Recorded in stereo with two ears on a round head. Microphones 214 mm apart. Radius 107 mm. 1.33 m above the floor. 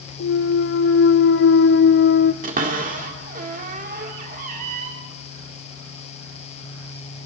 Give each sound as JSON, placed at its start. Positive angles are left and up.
{"t": 0.2, "sound": "a clunk", "side_deg": 50, "distance_m": 0.6}
{"t": 2.4, "sound": "a cupboard door", "side_deg": -35, "distance_m": 2.0}